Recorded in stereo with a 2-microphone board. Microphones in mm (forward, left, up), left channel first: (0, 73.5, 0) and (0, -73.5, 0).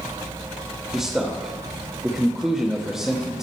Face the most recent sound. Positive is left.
turn(degrees=-5)  # may be behind; listen again after turning